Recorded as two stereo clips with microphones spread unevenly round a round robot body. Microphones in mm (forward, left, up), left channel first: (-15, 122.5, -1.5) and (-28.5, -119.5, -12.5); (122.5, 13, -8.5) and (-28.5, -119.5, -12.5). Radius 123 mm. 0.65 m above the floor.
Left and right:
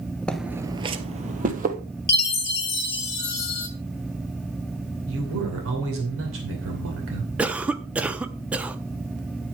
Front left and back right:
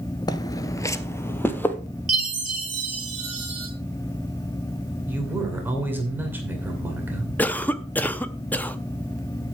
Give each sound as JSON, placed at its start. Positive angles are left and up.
{"t": 0.3, "sound": "footsteps", "azimuth_deg": 15, "distance_m": 0.6}
{"t": 2.1, "sound": "a chime", "azimuth_deg": 135, "distance_m": 1.5}
{"t": 5.1, "sound": "a man speaking", "azimuth_deg": -60, "distance_m": 2.5}
{"t": 7.4, "sound": "a cough", "azimuth_deg": -25, "distance_m": 0.5}